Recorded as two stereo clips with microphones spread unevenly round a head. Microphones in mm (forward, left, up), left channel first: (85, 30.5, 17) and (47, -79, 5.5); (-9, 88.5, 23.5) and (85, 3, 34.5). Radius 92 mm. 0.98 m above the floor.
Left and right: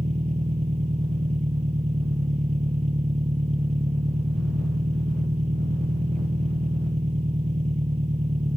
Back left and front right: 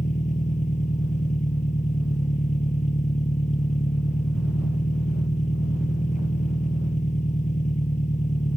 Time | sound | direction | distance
0.0 | an engine running | 170° right | ?